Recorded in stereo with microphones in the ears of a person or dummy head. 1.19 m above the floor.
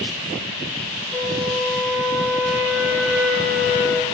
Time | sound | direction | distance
1.1 | a flute | 5° right (ahead or behind) | 5.5 m